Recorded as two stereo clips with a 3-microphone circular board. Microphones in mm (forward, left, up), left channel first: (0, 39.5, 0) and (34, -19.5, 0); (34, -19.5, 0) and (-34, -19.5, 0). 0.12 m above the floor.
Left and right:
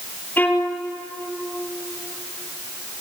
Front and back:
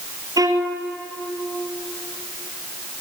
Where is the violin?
Straight behind, 2.5 m.